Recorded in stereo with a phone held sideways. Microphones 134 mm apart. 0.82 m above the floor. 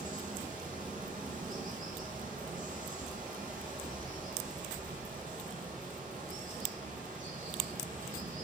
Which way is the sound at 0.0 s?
80° right.